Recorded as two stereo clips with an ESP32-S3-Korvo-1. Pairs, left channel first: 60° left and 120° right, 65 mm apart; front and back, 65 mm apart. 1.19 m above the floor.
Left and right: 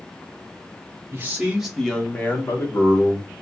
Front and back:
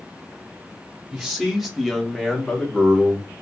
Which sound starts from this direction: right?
A man speaking, at 1.1 s.